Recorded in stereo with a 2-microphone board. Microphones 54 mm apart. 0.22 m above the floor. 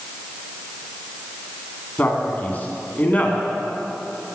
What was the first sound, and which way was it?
A man speaking, 35° left (ahead or behind).